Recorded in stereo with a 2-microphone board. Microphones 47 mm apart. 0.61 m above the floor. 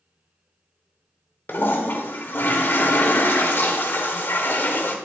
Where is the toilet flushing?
50° left (ahead or behind), 1.1 m.